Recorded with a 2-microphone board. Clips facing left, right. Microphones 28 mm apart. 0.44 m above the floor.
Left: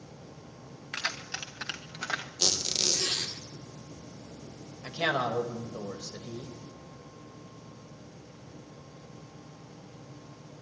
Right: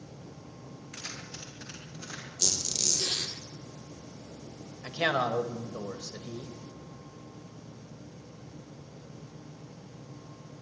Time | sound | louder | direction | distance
0.9 | keys jangling | left 9 dB | 60° left (ahead or behind) | 2.5 m
2.4 | a squeak | left 2 dB | 35° left (ahead or behind) | 2.0 m
4.8 | a man speaking | right 1 dB | 25° right (ahead or behind) | 2 m